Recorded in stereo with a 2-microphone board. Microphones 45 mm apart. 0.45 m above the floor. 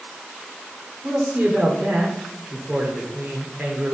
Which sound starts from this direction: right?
A man speaking, at 1.0 s.